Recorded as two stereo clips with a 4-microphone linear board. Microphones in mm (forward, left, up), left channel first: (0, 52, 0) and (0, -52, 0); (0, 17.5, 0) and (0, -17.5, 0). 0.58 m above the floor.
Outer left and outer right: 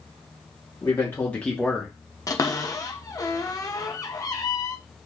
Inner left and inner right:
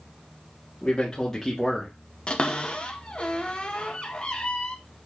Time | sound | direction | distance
0.8 | a man speaking | 30° left (ahead or behind) | 1.4 m
2.3 | a cupboard door | 35° left (ahead or behind) | 0.9 m